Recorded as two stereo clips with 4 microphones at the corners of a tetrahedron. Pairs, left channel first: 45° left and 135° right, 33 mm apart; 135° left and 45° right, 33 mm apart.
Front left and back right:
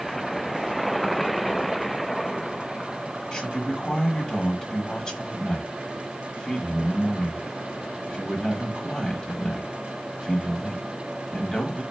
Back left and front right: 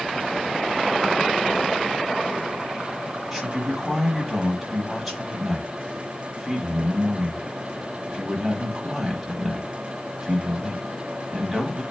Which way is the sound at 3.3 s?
45° left.